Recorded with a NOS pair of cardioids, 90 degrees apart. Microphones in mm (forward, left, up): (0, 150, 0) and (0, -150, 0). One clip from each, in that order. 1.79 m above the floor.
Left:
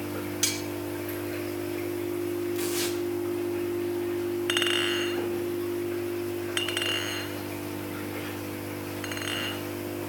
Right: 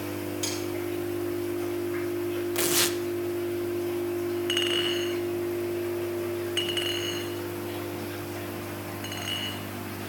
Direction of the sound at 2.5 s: 65° right.